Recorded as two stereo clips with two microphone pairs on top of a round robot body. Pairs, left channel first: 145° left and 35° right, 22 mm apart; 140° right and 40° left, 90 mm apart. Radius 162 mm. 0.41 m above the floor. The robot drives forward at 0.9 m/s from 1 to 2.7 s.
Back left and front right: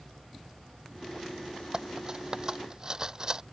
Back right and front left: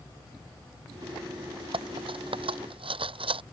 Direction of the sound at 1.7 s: 25° left.